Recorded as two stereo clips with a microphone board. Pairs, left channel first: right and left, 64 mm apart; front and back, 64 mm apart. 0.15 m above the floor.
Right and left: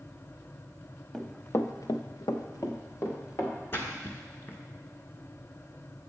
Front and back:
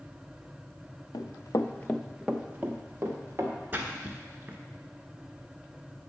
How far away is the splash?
About 1.0 m.